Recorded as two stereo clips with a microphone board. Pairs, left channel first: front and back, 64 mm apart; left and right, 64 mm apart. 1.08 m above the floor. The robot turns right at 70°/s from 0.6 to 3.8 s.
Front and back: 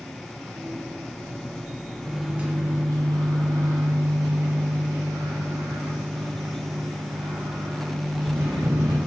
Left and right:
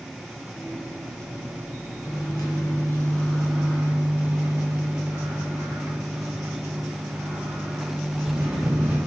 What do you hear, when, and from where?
2.0 s a microwave: 85° left, 1.4 m; by 9.0 s 150° right, 1.4 m